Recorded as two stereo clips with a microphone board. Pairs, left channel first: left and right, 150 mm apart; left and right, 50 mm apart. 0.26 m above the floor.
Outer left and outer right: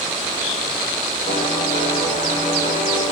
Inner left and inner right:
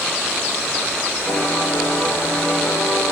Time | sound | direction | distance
1.3 | a piano | 55° left (ahead or behind) | 7.5 m